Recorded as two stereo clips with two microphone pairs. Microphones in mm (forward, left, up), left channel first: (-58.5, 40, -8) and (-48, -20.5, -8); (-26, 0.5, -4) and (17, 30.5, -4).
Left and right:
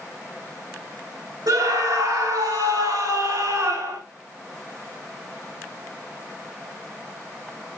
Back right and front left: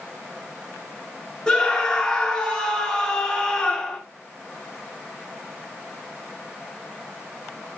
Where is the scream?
75° right, 3.5 m.